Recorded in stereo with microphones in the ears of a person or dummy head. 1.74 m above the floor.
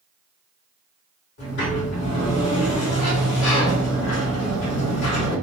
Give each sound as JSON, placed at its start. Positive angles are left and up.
{"t": 1.4, "sound": "a sliding door", "side_deg": 65, "distance_m": 1.3}